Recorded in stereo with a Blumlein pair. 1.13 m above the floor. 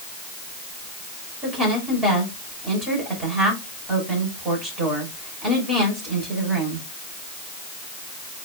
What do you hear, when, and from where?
1.4 s a woman speaking: 20° right, 6 m